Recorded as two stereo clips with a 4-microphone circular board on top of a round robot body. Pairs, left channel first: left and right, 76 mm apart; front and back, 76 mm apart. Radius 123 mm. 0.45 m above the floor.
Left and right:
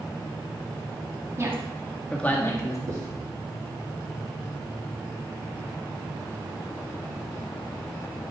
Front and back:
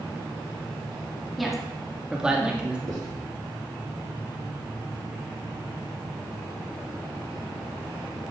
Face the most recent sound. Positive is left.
turn(degrees=-135)